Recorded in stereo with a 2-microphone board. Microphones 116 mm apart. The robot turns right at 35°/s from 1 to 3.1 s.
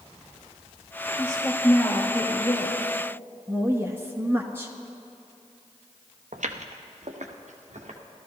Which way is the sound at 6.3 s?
85° right.